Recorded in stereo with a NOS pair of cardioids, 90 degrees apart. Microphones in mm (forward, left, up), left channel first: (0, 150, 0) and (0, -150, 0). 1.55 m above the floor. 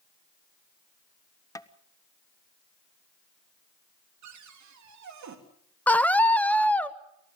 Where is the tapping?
10° left, 1.1 m.